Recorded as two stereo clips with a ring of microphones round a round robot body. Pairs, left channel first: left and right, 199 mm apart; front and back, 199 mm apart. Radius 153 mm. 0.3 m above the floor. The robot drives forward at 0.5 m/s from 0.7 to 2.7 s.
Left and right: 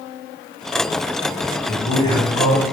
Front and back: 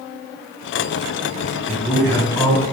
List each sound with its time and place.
1.7 s a man speaking: 35° left, 1.4 m; by 2.6 s 80° left, 1.3 m